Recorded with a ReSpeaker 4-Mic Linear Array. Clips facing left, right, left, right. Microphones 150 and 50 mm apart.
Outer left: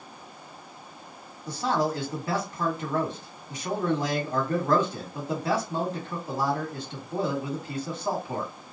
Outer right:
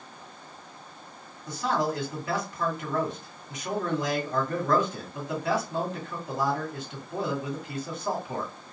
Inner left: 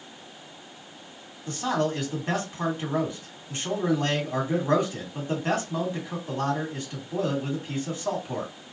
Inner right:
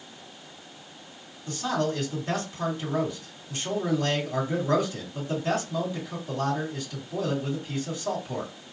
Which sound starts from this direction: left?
A man speaking, at 1.5 s.